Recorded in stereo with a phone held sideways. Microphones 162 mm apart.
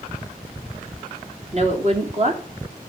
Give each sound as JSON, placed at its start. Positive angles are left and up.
{"t": 1.5, "sound": "a woman speaking", "side_deg": -45, "distance_m": 3.0}